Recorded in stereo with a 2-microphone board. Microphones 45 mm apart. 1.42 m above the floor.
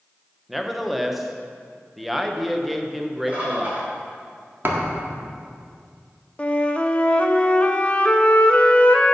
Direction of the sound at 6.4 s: 25° left (ahead or behind).